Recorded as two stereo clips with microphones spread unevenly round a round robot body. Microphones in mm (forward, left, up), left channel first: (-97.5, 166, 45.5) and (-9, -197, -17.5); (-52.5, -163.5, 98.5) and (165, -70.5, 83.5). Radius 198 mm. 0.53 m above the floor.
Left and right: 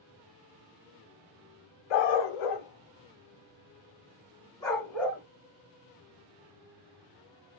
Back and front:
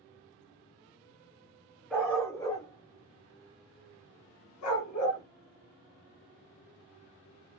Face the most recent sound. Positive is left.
turn(degrees=-170)